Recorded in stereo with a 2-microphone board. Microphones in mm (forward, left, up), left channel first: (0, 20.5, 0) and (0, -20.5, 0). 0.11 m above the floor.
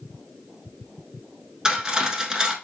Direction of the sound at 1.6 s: 20° right (ahead or behind).